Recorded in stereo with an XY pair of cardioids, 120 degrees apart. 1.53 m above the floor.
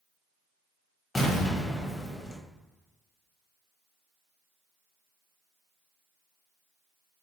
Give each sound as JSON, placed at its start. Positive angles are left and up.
{"t": 1.1, "sound": "an explosion", "azimuth_deg": 25, "distance_m": 1.2}